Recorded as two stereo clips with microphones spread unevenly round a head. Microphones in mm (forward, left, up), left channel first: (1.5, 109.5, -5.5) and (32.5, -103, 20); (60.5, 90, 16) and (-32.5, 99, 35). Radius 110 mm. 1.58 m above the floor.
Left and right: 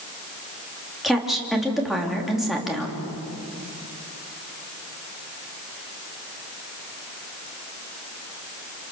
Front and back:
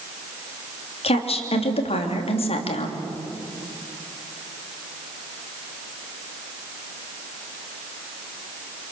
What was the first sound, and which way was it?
A woman speaking, 5° left.